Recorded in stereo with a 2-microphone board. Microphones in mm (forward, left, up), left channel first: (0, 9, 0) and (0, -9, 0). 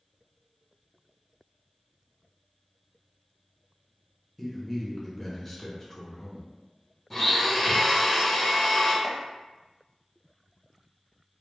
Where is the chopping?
Centre (ahead or behind), 0.6 m.